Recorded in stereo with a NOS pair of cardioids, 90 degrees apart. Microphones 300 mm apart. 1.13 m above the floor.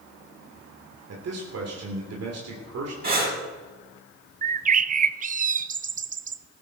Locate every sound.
1.1 s a man speaking: 55° right, 3 m
3.0 s breathing: 30° right, 6.5 m
4.4 s a bird: 25° right, 0.6 m